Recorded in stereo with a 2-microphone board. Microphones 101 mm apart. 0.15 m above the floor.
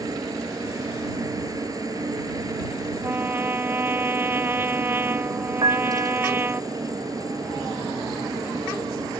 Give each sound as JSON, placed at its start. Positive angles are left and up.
{"t": 0.0, "sound": "a helicopter", "side_deg": -35}
{"t": 3.0, "sound": "a trumpet", "side_deg": -20}
{"t": 5.6, "sound": "a piano", "side_deg": -50}